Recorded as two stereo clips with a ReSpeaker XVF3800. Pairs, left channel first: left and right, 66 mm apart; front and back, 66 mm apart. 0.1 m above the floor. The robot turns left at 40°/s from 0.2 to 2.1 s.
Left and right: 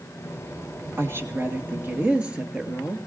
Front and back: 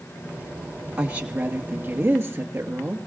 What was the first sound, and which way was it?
A woman speaking, 110° right.